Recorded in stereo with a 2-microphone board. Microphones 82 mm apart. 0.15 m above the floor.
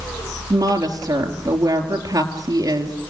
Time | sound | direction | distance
0.5 | a woman speaking | 50° right (ahead or behind) | 3.5 m